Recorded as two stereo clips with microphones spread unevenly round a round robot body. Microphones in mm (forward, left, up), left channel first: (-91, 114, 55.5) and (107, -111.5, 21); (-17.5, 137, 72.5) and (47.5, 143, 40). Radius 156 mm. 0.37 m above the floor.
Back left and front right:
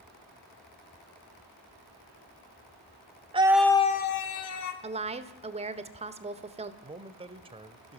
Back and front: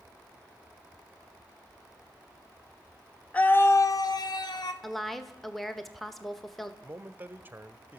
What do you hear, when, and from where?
3.3 s a scream: 65° right, 1.0 m; by 4.7 s 155° left, 1.5 m
4.8 s a woman speaking: 25° right, 1.1 m
6.8 s a man speaking: 15° left, 1.2 m